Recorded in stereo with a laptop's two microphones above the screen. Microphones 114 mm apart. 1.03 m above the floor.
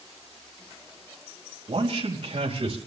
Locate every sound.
1.7 s a man speaking: 45° right (ahead or behind), 5 m; by 2.8 s 55° right (ahead or behind), 4.5 m